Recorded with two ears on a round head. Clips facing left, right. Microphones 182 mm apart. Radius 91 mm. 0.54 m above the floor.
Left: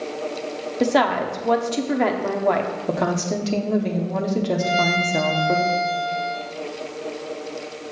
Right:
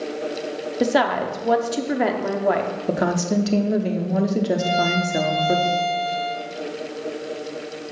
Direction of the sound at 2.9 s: 10° right (ahead or behind).